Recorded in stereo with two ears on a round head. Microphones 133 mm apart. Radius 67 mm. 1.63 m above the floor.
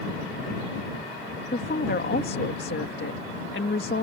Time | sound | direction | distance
1.5 | a woman speaking | 65° left (ahead or behind) | ?